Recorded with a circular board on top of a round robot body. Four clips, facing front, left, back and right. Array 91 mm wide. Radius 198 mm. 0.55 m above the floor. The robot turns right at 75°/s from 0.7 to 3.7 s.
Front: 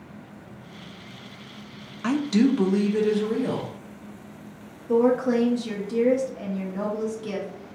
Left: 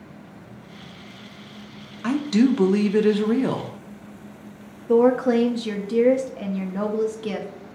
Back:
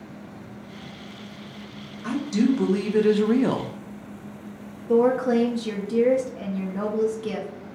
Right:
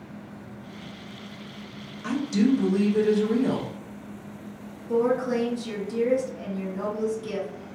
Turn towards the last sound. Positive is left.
turn(degrees=95)